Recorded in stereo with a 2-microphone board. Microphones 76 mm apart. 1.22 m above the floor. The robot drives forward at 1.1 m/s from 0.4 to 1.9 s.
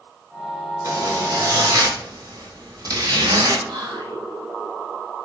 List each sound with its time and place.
0.8 s a zipper: 40° right (ahead or behind), 3.5 m; by 3.6 s 55° right (ahead or behind), 2.5 m
3.7 s whispering: 80° right, 2 m